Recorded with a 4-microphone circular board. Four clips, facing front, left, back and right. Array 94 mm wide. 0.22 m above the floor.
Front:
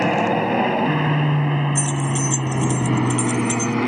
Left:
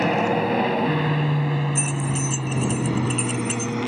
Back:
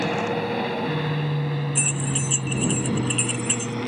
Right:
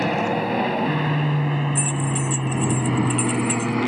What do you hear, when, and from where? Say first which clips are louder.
0.0 s an aircraft: left 1 dB, front 6 dB; 10° left; by 3.9 s 30° right
1.8 s keys jangling: right 1 dB, front 5 dB; 175° left